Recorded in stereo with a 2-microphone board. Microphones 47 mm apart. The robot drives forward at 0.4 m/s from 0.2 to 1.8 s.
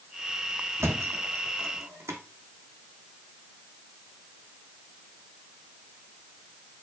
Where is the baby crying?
I don't hear a baby crying.